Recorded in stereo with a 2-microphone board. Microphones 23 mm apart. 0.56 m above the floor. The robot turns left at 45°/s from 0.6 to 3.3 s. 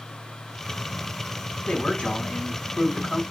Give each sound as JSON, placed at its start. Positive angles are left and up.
{"t": 1.7, "sound": "a man speaking", "azimuth_deg": 105, "distance_m": 4.0}